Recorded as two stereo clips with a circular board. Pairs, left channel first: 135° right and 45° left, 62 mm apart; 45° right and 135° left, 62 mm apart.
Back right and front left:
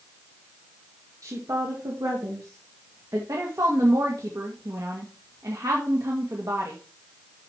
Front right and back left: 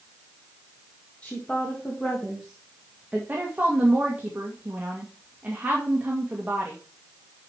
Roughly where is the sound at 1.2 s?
Ahead left.